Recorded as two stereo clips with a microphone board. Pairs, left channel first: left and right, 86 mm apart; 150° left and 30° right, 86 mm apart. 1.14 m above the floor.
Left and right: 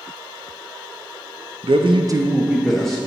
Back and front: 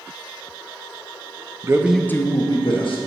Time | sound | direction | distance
1.6 | a man speaking | 80° right | 0.6 m